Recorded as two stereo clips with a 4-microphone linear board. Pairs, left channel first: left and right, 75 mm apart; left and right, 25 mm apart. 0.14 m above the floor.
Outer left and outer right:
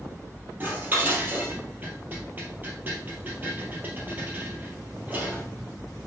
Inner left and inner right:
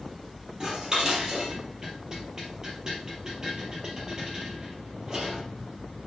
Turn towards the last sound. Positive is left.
turn(degrees=-25)  # may be behind; listen again after turning